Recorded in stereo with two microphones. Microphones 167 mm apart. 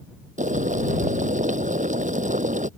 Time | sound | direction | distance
0.4 | boiling | 50° right (ahead or behind) | ?